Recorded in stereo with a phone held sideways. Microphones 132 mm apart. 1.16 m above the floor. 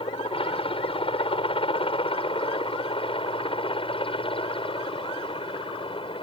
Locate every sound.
0.0 s a helicopter: 45° left (ahead or behind); by 6.2 s 40° left (ahead or behind)